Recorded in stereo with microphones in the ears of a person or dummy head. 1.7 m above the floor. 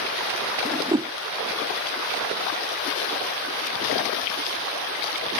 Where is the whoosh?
20° right (ahead or behind).